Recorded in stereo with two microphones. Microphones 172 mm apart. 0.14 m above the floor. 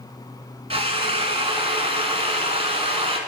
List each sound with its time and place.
0.7 s a drill: 35° right (ahead or behind), 1.1 m